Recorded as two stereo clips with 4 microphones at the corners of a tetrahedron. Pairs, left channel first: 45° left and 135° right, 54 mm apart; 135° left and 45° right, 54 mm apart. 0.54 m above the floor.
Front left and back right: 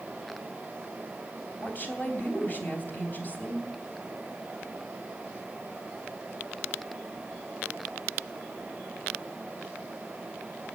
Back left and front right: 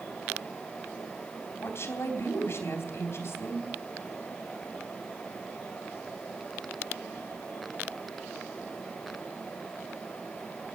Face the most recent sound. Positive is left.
turn(degrees=100)